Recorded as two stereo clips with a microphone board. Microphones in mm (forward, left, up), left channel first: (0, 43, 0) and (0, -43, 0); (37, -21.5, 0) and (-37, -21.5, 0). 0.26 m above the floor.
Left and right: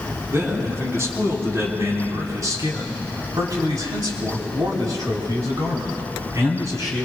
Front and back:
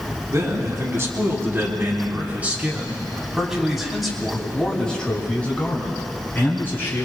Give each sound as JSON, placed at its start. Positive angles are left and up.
{"t": 0.3, "sound": "a man speaking", "azimuth_deg": -145, "distance_m": 3.0}